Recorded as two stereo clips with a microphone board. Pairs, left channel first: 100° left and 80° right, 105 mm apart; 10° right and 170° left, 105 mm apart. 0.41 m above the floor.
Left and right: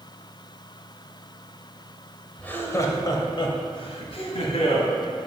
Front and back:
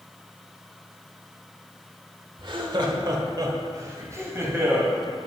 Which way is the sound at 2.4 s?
170° left.